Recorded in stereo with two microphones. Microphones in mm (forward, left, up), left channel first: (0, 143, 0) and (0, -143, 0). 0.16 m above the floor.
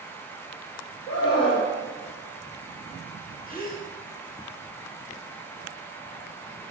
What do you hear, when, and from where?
1.1 s a scream: 20° left (ahead or behind), 2 m
3.5 s a gasp: 30° left (ahead or behind), 1.3 m